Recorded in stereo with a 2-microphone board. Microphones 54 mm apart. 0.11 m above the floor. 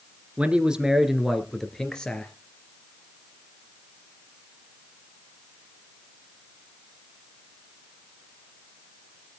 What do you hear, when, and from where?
0.4 s a man speaking: 25° right (ahead or behind), 1.9 m; by 2.3 s 20° left (ahead or behind), 2.5 m